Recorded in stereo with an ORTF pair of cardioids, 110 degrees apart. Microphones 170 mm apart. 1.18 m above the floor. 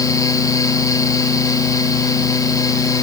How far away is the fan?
About 2 m.